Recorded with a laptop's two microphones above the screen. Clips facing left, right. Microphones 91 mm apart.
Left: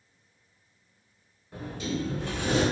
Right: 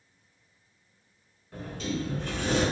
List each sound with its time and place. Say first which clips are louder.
1.5 s a sliding door: left 1 dB; 10° left (ahead or behind), 1.4 m